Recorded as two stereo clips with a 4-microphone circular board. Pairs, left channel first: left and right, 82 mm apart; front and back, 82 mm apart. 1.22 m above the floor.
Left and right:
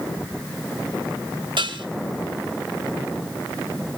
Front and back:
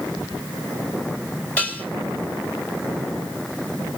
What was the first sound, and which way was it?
Dishes clattering, 75° right.